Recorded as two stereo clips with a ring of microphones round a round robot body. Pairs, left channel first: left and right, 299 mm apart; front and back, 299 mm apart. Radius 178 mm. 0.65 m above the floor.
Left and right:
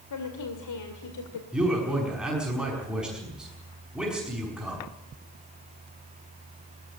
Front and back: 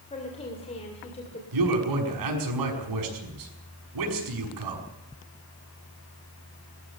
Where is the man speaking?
Straight behind, 5.5 m.